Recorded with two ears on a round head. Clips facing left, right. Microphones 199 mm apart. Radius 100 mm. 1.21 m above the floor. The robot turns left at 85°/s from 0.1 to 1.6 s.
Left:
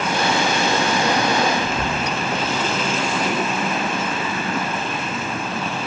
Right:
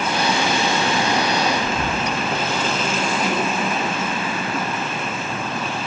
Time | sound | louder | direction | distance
1.6 | whispering | even | 55° right (ahead or behind) | 0.5 m